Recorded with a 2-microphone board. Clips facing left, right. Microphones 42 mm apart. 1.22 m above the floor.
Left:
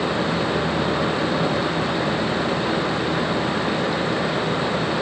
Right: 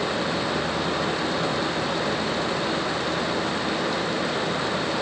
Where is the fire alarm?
No fire alarm in this recording.